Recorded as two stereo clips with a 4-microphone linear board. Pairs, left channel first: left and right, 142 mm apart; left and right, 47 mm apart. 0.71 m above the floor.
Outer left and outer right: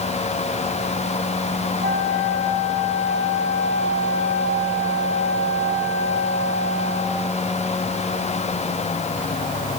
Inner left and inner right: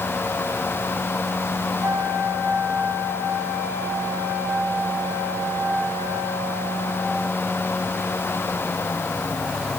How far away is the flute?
About 6 m.